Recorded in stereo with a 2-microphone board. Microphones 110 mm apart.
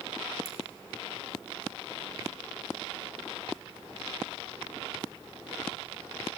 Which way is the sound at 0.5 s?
35° right (ahead or behind).